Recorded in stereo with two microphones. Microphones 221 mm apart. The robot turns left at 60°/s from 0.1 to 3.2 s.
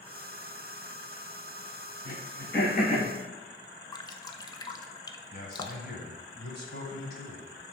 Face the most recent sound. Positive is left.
turn(degrees=45)  # may be behind; listen again after turning